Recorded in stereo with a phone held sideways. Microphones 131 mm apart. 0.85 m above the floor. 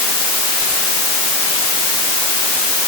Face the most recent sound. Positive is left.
No sound to turn to.